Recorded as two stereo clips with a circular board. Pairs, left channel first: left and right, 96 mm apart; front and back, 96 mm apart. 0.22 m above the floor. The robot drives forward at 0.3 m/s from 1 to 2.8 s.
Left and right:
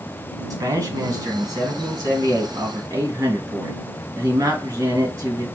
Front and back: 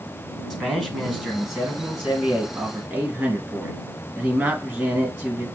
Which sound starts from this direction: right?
A man speaking, at 0.5 s.